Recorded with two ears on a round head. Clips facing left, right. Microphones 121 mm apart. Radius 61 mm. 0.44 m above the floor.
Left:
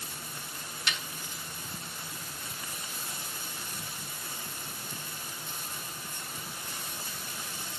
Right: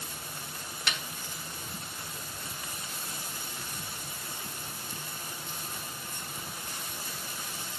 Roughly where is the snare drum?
Right.